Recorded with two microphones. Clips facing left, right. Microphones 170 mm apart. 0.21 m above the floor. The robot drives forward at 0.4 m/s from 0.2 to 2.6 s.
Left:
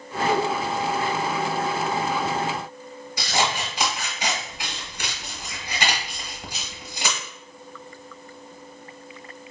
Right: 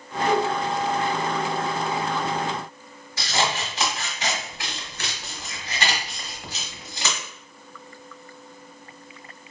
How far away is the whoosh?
About 1.8 m.